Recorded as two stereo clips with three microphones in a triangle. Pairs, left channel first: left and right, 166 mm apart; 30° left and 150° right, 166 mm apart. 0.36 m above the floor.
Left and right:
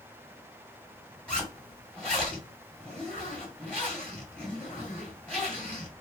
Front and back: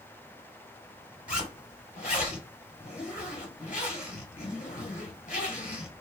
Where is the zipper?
5° left, 1.5 m.